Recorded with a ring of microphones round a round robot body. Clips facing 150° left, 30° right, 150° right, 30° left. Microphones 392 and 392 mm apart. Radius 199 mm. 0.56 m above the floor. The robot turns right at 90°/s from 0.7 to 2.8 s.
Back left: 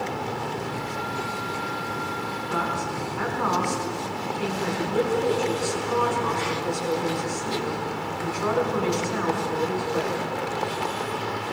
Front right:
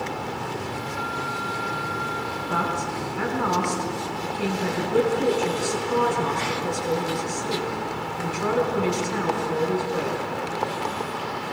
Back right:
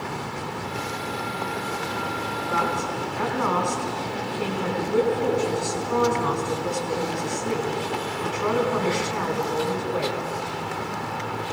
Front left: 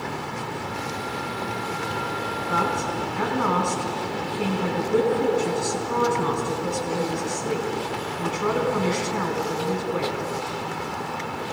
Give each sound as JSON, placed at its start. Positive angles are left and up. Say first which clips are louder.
{"t": 2.5, "sound": "a man speaking", "louder": "front right 1 dB, front left 1 dB", "azimuth_deg": 0, "distance_m": 4.5}